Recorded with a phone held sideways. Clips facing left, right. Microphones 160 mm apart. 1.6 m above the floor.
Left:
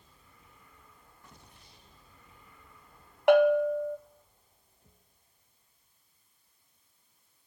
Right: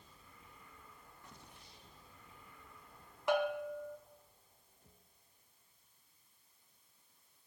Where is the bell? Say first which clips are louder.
Left 13 dB; 70° left (ahead or behind), 0.6 m.